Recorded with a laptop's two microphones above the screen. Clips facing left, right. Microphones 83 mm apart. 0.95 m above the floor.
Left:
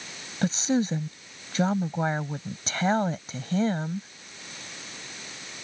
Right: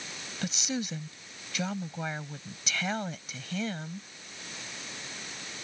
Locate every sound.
0.4 s a woman speaking: 35° left (ahead or behind)